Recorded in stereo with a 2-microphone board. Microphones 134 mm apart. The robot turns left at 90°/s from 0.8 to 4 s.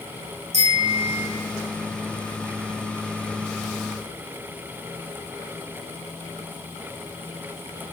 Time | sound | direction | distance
0.5 | a bicycle bell | 125° right | 8 m